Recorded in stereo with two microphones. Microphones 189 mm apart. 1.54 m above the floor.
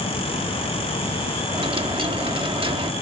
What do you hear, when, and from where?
1.5 s a dropped coin: 30° right (ahead or behind), 1.2 m